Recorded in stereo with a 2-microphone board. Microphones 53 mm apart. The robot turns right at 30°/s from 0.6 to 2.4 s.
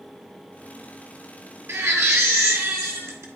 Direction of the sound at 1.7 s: 70° right (ahead or behind).